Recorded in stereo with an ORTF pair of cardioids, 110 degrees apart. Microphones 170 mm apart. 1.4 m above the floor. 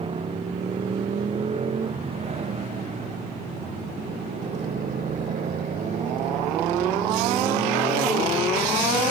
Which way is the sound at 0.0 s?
30° right.